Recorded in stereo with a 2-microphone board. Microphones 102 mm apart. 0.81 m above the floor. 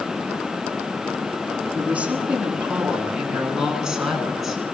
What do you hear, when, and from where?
1.8 s a woman speaking: 15° right (ahead or behind), 10 m; by 4.6 s centre (ahead or behind), 9.5 m